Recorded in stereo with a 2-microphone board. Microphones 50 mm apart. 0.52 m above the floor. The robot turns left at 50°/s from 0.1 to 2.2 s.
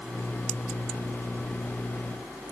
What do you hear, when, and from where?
Only background noise.